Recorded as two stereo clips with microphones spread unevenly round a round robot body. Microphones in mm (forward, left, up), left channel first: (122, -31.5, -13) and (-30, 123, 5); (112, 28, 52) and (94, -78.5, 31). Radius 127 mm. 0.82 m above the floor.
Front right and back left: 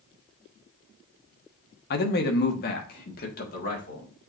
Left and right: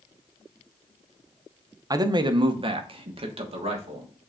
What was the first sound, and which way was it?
A man speaking, 70° right.